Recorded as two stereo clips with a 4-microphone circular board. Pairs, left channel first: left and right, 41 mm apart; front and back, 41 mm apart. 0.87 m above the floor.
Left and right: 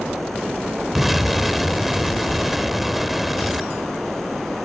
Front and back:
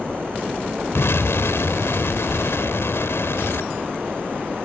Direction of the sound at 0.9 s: 5° right.